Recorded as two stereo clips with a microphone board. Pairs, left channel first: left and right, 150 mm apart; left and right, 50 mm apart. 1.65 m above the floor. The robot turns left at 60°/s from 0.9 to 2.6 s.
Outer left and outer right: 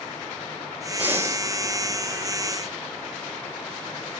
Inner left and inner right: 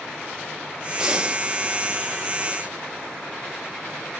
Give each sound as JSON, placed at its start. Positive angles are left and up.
{"t": 1.0, "sound": "breathing", "side_deg": -10, "distance_m": 1.2}